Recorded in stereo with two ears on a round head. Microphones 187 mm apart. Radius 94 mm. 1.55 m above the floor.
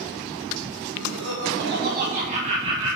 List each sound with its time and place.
0.9 s laughter: 70° right (ahead or behind), 1.3 m; by 3.0 s 20° right (ahead or behind), 1.5 m